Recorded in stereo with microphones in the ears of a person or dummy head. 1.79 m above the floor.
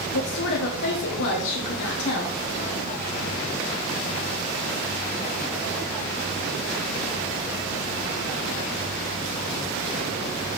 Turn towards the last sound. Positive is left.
turn(degrees=70)  # may be behind; listen again after turning